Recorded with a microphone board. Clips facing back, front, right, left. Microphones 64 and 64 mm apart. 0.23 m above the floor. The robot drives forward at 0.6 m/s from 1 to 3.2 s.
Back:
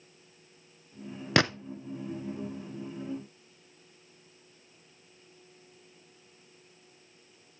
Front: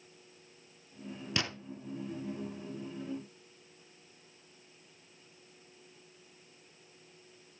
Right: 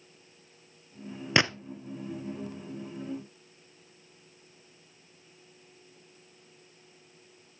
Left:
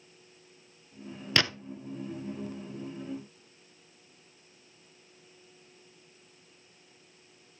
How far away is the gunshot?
About 0.5 m.